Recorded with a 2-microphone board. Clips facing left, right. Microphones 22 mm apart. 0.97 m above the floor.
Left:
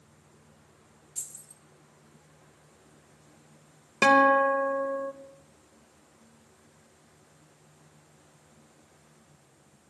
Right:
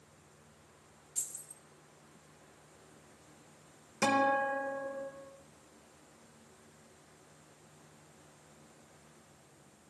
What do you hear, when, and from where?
1.1 s keys jangling: 5° left (ahead or behind), 2.5 m
4.0 s a guitar: 55° left (ahead or behind), 0.9 m